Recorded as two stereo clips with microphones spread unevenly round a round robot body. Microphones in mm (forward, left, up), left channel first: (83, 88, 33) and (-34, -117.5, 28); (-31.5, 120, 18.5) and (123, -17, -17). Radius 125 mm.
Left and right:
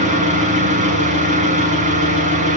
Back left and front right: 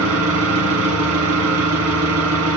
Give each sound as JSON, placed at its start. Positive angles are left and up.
{"t": 0.0, "sound": "an engine running", "azimuth_deg": -60, "distance_m": 1.9}